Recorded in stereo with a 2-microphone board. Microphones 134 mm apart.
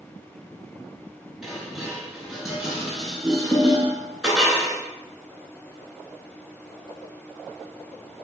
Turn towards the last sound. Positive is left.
turn(degrees=0)  # may be behind; listen again after turning